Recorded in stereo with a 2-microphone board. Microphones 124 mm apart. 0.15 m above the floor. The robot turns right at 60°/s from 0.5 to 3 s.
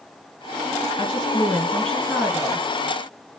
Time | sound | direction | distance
1.0 | a woman speaking | 120° left | 2.5 m